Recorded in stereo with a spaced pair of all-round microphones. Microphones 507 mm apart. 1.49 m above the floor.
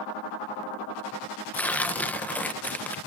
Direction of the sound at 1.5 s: 5° left (ahead or behind).